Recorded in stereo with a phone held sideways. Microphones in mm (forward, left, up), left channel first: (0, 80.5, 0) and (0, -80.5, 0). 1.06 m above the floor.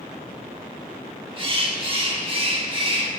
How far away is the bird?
About 1.1 m.